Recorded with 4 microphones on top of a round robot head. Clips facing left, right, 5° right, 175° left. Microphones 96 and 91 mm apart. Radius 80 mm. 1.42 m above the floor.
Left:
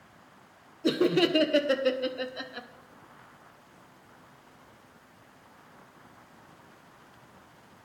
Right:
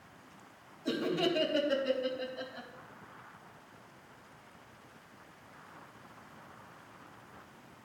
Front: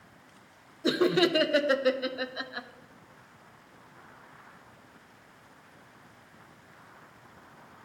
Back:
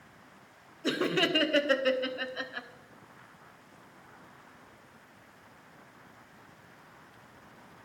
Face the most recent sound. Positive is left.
turn(degrees=70)